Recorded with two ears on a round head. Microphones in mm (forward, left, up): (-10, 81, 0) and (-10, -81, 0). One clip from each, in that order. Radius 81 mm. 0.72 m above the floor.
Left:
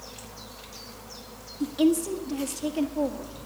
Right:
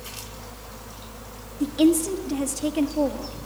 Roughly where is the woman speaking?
Centre.